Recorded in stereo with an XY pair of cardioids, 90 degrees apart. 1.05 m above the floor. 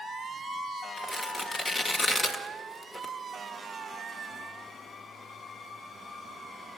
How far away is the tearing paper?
About 1.8 m.